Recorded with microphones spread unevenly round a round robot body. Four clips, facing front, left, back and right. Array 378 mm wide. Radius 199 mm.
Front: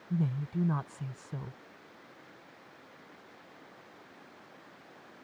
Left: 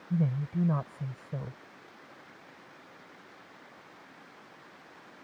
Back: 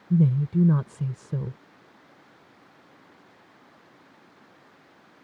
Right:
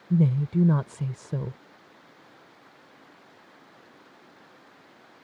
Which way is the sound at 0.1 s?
155° right.